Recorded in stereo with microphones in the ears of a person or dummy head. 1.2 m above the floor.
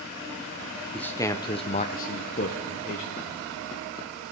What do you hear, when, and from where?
0.9 s a man speaking: centre (ahead or behind), 0.7 m; by 3.4 s 45° left (ahead or behind), 1.4 m